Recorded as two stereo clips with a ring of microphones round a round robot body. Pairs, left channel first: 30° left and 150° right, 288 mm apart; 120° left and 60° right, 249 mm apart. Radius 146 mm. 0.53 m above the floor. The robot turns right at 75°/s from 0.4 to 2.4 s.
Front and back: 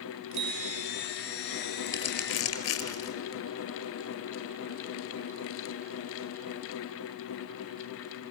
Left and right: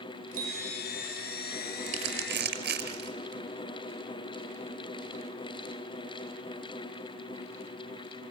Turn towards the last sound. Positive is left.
turn(degrees=-15)